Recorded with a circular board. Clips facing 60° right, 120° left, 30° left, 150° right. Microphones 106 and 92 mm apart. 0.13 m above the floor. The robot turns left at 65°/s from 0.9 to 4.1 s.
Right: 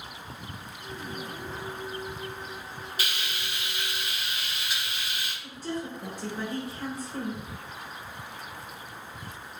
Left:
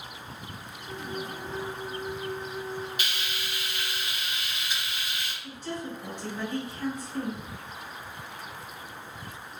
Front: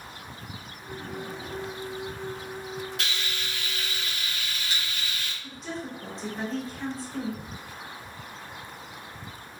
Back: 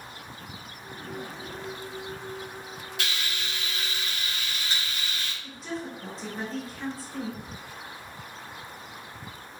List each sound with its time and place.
3.0 s frying: 60° right, 1.9 m; by 5.3 s 135° right, 1.9 m
5.4 s a woman speaking: 65° right, 2.0 m